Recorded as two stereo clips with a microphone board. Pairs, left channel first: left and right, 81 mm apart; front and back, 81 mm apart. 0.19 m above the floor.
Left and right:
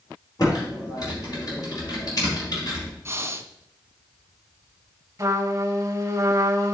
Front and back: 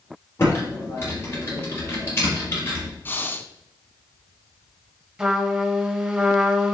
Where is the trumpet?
110° right, 1.6 m.